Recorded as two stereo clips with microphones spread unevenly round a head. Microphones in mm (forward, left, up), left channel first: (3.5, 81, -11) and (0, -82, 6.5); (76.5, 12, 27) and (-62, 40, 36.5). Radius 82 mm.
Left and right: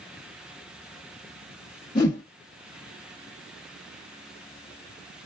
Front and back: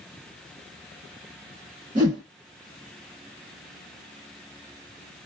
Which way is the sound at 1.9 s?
160° left.